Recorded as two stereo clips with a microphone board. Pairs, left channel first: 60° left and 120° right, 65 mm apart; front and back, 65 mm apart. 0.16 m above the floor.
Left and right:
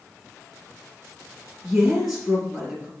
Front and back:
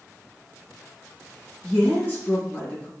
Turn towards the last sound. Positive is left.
turn(degrees=-40)